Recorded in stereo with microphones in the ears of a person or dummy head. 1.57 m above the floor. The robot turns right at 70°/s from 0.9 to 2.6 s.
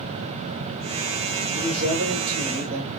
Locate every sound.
1.6 s a man speaking: 135° right, 3 m; by 2.9 s 60° right, 3 m